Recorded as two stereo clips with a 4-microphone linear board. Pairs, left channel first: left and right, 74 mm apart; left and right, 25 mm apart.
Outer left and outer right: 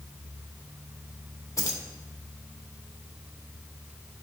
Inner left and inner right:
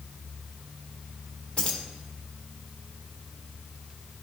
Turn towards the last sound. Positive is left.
turn(degrees=45)  # may be behind; listen again after turning